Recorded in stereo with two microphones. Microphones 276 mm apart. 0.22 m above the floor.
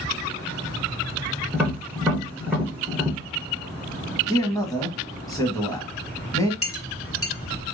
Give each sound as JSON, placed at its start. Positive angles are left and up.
{"t": 1.5, "sound": "tapping", "side_deg": -5, "distance_m": 1.5}
{"t": 4.3, "sound": "a man speaking", "side_deg": 10, "distance_m": 1.2}
{"t": 6.6, "sound": "a clink", "side_deg": 50, "distance_m": 1.1}